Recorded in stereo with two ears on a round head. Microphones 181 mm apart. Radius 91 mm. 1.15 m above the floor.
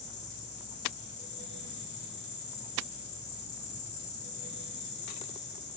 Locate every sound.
0.0 s an insect: 55° left (ahead or behind), 3.5 m